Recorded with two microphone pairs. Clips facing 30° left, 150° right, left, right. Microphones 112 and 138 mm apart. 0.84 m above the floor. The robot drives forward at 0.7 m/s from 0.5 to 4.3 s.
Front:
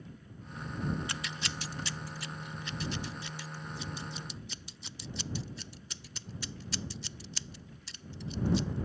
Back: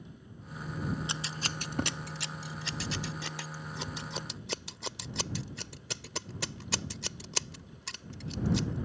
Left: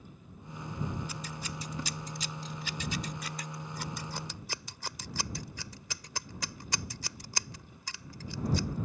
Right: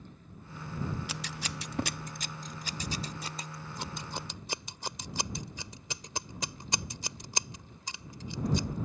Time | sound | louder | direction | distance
1.1 | scissors | back 2 dB, right 1 dB | 85° right | ?